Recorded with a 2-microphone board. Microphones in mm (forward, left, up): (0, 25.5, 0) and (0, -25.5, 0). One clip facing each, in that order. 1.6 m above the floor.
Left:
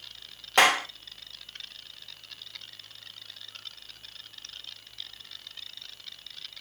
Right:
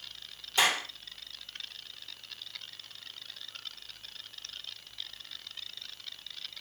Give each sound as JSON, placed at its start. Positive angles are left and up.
{"t": 0.6, "sound": "a clap", "side_deg": 65, "distance_m": 1.6}